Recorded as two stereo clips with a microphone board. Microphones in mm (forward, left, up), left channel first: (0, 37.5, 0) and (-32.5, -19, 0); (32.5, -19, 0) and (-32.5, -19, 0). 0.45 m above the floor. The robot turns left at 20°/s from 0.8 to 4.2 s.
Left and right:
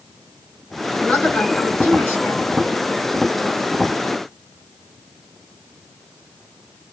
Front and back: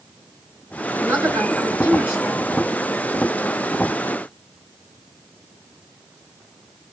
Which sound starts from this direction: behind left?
A woman speaking, at 1.0 s.